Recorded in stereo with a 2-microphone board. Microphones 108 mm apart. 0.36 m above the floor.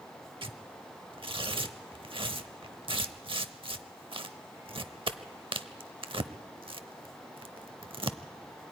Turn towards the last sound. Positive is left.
turn(degrees=-55)  # may be behind; listen again after turning